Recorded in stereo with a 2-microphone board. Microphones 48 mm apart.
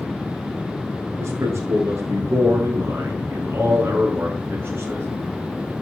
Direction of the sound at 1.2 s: 80° right.